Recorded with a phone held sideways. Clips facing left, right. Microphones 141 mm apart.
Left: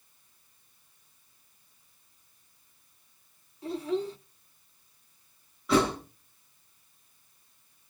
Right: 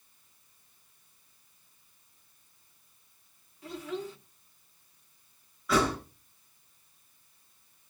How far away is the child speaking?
About 1.7 m.